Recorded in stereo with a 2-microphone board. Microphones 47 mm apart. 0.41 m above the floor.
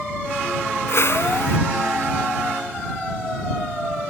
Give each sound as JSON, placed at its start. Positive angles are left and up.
{"t": 0.9, "sound": "a whoosh", "side_deg": 55}